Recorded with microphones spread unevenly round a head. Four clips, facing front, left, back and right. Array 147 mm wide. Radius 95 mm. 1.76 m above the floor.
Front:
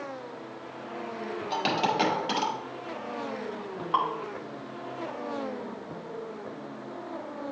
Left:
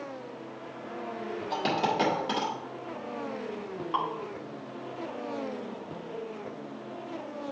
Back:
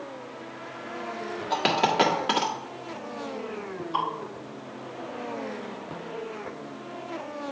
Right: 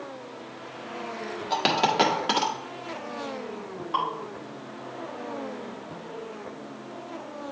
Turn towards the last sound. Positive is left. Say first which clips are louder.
# right 3 dB, front 2 dB
turn(degrees=5)